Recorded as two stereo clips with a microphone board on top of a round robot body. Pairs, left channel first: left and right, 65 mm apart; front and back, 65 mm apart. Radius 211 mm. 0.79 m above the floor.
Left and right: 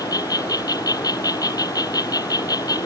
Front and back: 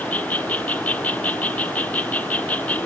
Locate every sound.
0.0 s an insect: 65° left